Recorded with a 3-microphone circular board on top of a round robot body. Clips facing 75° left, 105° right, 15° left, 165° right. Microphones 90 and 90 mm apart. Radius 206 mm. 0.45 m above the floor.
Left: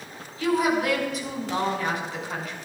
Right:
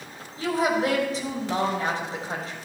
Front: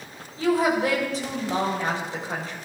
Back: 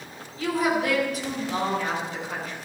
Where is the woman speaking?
45° right, 4 m.